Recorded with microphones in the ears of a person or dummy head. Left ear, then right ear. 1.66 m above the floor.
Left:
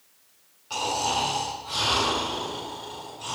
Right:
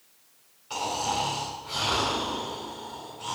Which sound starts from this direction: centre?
Snoring, at 0.7 s.